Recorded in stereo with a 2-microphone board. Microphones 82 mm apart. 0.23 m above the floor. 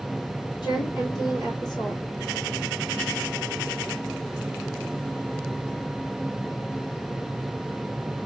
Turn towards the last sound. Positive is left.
turn(degrees=65)  # may be behind; listen again after turning